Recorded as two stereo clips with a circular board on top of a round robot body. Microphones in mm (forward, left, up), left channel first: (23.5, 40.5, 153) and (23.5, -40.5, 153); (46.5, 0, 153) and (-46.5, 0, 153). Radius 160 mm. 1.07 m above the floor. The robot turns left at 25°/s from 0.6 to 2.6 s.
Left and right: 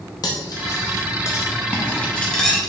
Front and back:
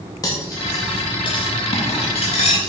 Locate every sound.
0.2 s cutlery clinking: 55° left, 0.6 m; by 2.7 s 5° left, 0.6 m